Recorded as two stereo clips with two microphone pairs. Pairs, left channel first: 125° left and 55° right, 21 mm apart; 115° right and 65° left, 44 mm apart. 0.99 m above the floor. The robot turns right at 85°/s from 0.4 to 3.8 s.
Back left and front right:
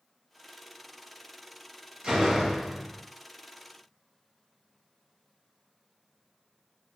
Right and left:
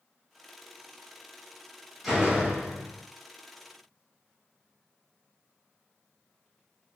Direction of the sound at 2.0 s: 20° right.